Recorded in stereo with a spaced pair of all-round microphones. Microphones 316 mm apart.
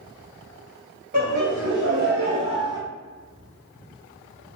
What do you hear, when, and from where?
1.1 s laughter: 35° right (ahead or behind), 0.9 m; by 2.8 s 10° right (ahead or behind), 0.6 m